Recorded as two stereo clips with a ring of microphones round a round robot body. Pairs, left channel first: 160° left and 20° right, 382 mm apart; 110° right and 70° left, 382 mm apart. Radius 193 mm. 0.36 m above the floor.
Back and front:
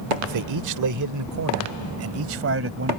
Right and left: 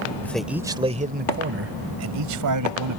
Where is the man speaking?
30° right; by 3.0 s 35° left.